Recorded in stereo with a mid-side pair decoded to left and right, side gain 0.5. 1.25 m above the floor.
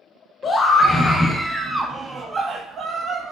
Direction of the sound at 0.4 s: 40° left.